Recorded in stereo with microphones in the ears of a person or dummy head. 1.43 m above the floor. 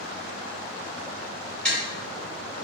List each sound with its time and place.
1.6 s tapping: 5° left (ahead or behind), 1.8 m